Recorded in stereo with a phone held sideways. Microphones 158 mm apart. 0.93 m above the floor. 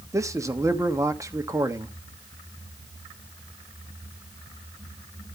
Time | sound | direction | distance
0.1 | a man speaking | 20° right (ahead or behind) | 1.2 m